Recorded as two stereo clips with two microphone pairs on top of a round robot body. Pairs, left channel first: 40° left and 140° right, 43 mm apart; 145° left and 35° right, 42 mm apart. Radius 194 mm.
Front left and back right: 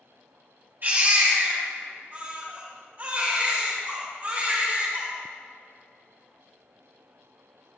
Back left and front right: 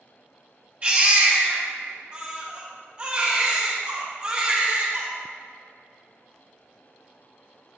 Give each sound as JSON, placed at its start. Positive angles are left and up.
{"t": 0.8, "sound": "a baby crying", "azimuth_deg": -100, "distance_m": 3.5}